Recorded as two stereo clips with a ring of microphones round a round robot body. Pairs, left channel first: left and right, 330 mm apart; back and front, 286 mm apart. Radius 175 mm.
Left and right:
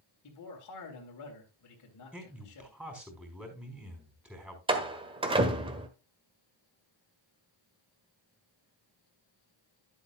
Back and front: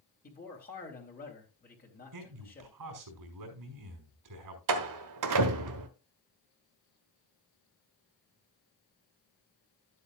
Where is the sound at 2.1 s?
5° right, 4 m.